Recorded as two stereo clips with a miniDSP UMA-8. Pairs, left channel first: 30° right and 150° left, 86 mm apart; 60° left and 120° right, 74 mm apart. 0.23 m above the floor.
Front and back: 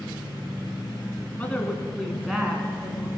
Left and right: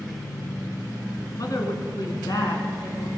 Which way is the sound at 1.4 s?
40° left.